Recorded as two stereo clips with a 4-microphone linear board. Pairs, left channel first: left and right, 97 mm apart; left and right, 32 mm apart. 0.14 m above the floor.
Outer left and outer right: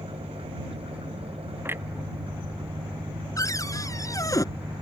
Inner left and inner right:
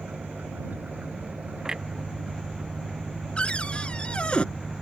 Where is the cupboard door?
35° left (ahead or behind).